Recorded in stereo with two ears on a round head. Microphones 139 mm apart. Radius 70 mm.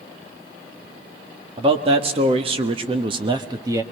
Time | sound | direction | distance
1.6 | a man speaking | 35° right (ahead or behind) | 1.6 m